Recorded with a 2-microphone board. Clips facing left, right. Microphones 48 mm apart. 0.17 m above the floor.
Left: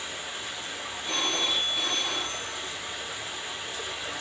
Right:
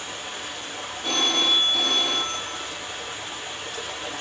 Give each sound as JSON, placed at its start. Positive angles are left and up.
{"t": 0.0, "sound": "running water", "side_deg": -55, "distance_m": 4.0}
{"t": 1.0, "sound": "a phone ringing", "side_deg": -75, "distance_m": 3.5}